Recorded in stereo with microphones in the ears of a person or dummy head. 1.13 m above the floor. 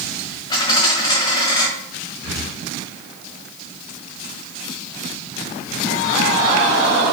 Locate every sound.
0.5 s a dropped coin: 30° left (ahead or behind), 1.8 m
2.2 s breathing: 50° right (ahead or behind), 4.5 m